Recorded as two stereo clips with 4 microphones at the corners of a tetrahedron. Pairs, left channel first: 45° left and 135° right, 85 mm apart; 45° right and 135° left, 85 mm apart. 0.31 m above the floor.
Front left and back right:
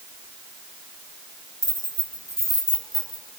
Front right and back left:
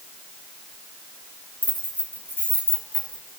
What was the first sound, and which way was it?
Keys jangling, 25° left.